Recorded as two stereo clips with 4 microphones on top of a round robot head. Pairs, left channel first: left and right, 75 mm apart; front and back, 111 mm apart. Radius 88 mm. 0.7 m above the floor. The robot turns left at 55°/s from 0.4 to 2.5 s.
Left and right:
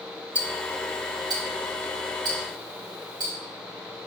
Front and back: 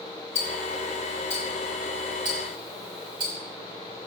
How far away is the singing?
No singing in this recording.